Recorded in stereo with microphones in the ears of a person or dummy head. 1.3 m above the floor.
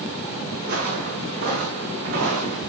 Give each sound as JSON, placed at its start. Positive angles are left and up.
{"t": 0.6, "sound": "footsteps", "side_deg": -45, "distance_m": 4.0}